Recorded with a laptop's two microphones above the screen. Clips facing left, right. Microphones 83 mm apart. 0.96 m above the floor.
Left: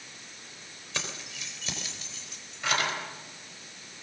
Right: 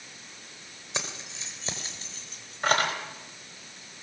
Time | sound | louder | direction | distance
0.9 | keys jangling | right 1 dB | 20° right (ahead or behind) | 3.5 m